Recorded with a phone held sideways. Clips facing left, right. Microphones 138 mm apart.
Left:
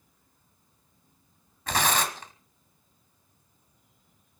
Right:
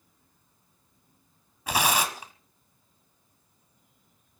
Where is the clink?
I don't hear a clink.